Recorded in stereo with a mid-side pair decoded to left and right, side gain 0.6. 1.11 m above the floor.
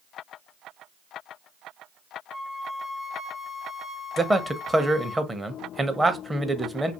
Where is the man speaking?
10° right, 0.6 m.